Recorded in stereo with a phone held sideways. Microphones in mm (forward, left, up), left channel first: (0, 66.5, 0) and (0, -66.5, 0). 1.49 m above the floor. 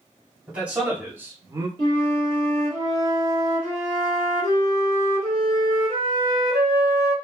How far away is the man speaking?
About 2.5 m.